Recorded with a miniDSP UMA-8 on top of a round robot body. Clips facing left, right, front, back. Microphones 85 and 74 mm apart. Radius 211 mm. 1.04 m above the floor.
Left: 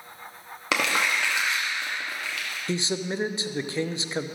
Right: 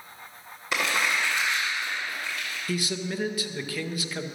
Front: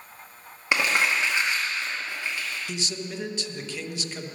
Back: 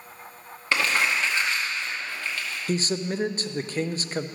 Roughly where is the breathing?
I don't hear breathing.